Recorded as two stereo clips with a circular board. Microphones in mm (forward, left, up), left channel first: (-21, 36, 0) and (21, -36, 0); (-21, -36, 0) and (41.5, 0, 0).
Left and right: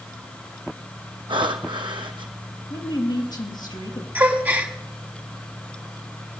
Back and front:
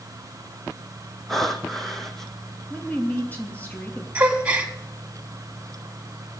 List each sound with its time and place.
1.3 s breathing: 65° right, 1.2 m
2.7 s a woman speaking: 145° left, 3.5 m
4.2 s a gasp: 20° right, 1.4 m